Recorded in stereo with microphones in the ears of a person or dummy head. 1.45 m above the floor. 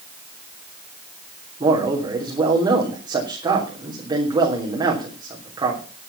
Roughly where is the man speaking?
Centre.